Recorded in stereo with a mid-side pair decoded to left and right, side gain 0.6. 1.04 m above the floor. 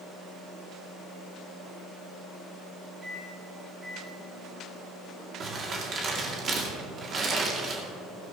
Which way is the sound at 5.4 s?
40° right.